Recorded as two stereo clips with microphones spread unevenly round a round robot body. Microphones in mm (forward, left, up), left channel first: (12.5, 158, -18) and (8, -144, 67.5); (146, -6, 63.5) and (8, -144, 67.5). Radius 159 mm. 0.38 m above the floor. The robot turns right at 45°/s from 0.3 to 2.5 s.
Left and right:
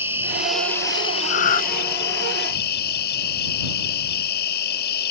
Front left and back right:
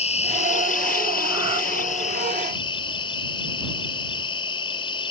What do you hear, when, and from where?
0.0 s an insect: 5° left; by 5.1 s 105° left
1.3 s breathing: 145° left; by 1.6 s 165° left